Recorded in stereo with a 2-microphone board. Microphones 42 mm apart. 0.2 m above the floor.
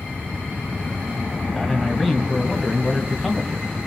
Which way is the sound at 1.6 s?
Centre (ahead or behind).